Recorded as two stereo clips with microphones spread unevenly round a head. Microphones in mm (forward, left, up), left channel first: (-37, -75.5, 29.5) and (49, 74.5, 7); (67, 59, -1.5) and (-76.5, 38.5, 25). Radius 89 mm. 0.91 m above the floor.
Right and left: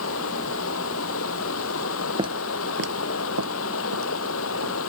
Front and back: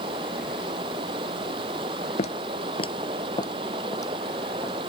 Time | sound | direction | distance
0.0 | running water | 105° right | ?
2.2 | footsteps | straight ahead | ?